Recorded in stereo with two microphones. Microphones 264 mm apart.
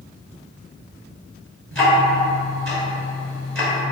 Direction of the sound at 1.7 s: 45° right (ahead or behind).